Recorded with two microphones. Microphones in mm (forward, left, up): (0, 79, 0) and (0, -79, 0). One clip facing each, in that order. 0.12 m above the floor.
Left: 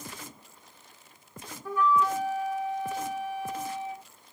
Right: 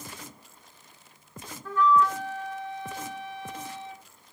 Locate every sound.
1.6 s a flute: 10° left (ahead or behind), 0.8 m